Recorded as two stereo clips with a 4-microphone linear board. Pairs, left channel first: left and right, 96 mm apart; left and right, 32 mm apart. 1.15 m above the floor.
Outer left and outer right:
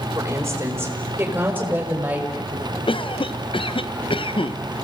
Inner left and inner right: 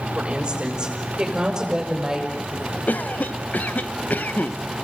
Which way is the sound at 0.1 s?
30° right (ahead or behind).